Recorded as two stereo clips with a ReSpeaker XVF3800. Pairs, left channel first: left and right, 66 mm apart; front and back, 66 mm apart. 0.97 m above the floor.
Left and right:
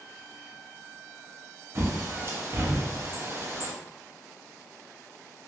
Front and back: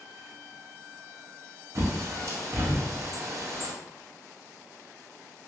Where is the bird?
135° right, 0.6 m.